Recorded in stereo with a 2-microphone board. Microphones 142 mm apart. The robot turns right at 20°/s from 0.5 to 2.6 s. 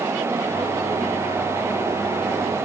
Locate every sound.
Only background noise.